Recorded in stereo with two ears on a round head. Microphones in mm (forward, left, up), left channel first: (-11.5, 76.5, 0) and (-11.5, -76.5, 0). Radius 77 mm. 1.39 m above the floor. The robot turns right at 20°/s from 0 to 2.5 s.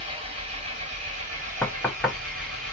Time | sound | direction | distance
0.0 | an engine running | 145° right | 1.9 m
1.6 | knocking | 5° left (ahead or behind) | 0.5 m